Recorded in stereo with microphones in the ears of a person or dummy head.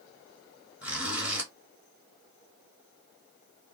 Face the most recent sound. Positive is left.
turn(degrees=-5)  # may be behind; listen again after turning